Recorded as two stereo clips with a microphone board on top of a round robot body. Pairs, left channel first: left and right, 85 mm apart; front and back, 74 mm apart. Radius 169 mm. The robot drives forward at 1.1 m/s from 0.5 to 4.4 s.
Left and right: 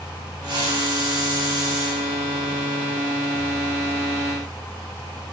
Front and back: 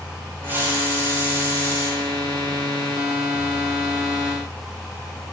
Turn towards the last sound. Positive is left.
turn(degrees=-140)